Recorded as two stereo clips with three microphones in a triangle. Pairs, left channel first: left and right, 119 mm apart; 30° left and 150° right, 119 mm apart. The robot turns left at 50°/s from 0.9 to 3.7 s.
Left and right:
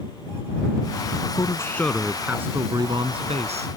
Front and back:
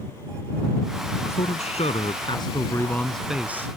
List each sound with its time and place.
1.2 s a man speaking: 40° left; by 3.7 s 80° right